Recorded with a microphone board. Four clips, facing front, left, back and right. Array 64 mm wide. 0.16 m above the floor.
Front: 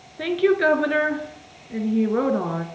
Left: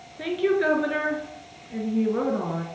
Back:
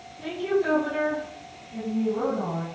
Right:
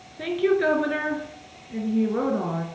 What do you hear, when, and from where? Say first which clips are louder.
0.2 s a woman speaking: right 1 dB, front 7 dB; 5° right, 3 m